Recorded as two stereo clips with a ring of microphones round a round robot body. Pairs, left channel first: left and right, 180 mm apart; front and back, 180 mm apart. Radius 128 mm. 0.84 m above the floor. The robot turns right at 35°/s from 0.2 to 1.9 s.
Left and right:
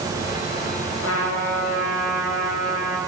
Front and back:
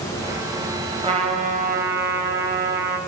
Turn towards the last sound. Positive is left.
turn(degrees=150)